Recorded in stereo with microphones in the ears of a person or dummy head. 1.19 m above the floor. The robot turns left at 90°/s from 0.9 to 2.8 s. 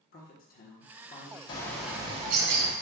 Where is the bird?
30° left, 0.8 m; by 2.7 s 85° right, 0.8 m.